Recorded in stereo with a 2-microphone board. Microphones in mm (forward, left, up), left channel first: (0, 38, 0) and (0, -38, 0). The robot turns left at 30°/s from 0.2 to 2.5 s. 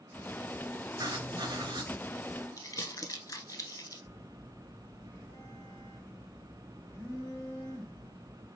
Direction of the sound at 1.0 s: 65° right (ahead or behind).